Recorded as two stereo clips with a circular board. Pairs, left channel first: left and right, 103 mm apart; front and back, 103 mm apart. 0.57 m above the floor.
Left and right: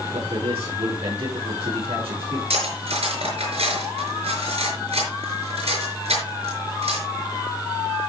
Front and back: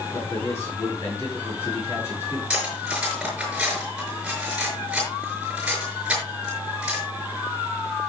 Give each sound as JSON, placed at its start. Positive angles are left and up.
{"t": 0.1, "sound": "a man speaking", "azimuth_deg": -65, "distance_m": 7.0}
{"t": 2.5, "sound": "cutlery clinking", "azimuth_deg": -100, "distance_m": 5.0}